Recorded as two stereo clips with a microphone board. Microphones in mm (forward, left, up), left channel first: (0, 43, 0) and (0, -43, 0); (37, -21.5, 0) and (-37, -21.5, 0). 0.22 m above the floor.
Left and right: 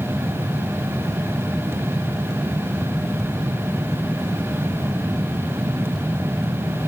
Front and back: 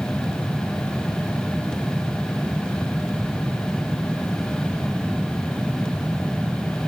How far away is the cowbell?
I don't hear a cowbell.